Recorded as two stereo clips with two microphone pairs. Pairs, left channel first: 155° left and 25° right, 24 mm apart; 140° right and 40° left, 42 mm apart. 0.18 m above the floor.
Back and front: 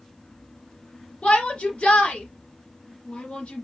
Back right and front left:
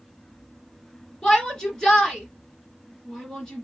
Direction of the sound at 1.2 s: 145° left.